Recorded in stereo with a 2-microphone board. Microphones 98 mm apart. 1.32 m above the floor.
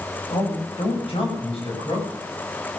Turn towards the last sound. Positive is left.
turn(degrees=75)  # may be behind; listen again after turning